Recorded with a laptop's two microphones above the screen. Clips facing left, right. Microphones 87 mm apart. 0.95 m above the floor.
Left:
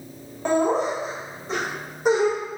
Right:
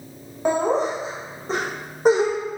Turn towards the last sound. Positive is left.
turn(degrees=-45)  # may be behind; listen again after turning